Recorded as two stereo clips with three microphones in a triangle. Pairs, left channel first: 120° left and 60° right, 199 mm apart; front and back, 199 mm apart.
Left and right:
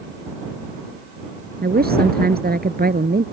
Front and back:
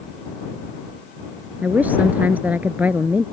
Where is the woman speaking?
100° right.